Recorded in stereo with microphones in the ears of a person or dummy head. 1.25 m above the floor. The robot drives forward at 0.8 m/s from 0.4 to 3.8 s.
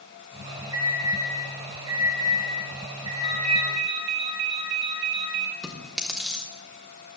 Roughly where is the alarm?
Right.